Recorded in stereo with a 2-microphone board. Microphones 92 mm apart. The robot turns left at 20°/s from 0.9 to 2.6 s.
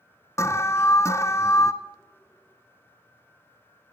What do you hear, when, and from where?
0.4 s an alarm: 30° left (ahead or behind), 0.9 m